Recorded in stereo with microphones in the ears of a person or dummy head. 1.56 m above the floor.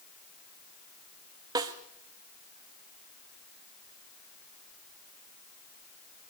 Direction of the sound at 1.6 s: 20° right (ahead or behind).